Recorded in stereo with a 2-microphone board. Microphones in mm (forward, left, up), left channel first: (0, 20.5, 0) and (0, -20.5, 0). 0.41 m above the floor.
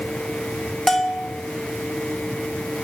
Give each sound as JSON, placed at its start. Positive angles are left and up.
{"t": 0.9, "sound": "a bell", "side_deg": 10, "distance_m": 0.7}